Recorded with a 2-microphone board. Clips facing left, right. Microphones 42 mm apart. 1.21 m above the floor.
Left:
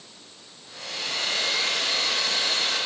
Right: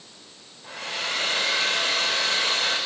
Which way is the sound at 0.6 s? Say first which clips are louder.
Right 4 dB; 85° right.